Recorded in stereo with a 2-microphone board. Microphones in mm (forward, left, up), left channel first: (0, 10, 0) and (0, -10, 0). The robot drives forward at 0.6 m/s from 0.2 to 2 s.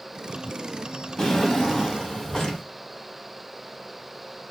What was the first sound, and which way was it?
A drawer, 30° left (ahead or behind).